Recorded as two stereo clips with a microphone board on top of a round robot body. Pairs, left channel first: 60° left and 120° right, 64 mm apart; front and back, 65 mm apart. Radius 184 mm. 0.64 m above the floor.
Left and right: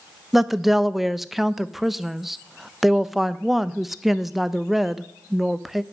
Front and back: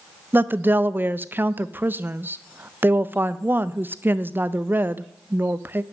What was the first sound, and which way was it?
A woman speaking, 155° left.